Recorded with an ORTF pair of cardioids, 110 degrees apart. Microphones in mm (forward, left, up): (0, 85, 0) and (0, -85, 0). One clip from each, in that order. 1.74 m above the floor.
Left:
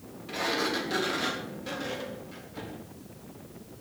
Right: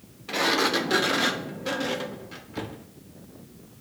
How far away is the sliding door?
About 1.3 m.